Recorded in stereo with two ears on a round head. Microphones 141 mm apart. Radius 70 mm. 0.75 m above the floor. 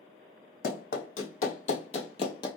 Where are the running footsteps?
65° left (ahead or behind), 1.5 m; by 2.5 s 30° left (ahead or behind), 0.8 m.